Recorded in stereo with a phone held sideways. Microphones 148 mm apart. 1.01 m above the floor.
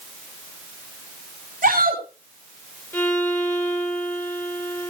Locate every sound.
1.6 s a shout: 75° right (ahead or behind), 5.5 m
2.9 s a violin: 15° left (ahead or behind), 4.5 m